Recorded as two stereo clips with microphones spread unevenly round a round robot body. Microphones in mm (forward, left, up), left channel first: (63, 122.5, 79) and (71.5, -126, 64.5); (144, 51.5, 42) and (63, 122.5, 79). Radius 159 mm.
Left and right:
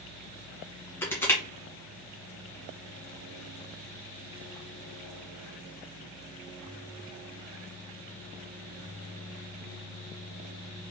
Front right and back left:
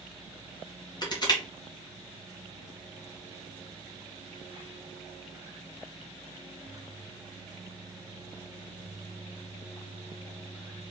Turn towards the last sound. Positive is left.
turn(degrees=10)